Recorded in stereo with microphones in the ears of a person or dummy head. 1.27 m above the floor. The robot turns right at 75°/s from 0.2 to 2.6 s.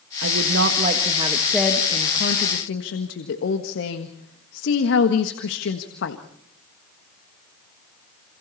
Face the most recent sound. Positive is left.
turn(degrees=80)